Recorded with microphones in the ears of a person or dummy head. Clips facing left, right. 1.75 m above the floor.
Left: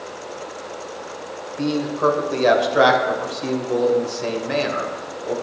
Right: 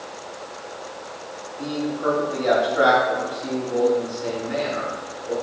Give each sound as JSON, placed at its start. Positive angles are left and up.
{"t": 1.6, "sound": "a man speaking", "side_deg": 85, "distance_m": 1.3}